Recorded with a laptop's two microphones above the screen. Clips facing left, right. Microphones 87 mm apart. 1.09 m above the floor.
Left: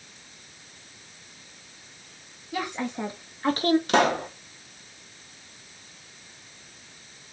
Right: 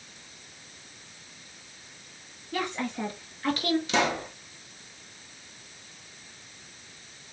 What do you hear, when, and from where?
2.5 s a woman speaking: 10° left (ahead or behind), 1.9 m; by 3.8 s 45° left (ahead or behind), 1.2 m
3.9 s a pop: 55° left (ahead or behind), 1.5 m